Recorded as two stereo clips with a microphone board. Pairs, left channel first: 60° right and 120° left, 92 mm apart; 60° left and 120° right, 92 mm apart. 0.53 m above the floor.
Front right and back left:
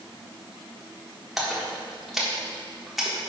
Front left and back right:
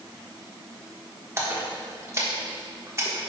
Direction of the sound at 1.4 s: 155° right.